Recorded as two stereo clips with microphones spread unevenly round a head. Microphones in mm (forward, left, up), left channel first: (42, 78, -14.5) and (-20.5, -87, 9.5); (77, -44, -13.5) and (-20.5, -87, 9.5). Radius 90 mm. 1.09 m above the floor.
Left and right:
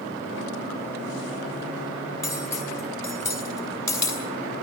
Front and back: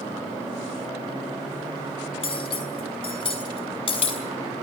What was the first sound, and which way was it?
Cutlery clinking, 5° right.